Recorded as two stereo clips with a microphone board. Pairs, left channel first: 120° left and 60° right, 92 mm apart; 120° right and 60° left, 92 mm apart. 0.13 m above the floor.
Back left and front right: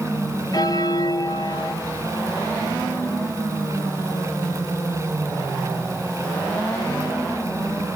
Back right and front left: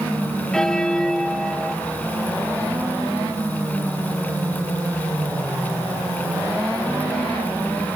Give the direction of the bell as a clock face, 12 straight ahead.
7 o'clock.